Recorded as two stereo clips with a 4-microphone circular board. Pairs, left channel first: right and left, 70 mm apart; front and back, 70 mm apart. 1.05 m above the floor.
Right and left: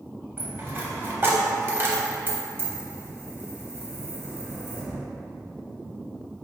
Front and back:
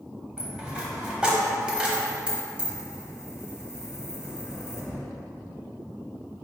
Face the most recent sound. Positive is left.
turn(degrees=115)